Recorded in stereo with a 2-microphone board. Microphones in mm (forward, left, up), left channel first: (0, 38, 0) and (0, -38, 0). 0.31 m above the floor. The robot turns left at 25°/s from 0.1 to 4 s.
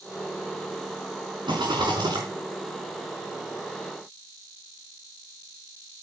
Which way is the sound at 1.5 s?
85° right.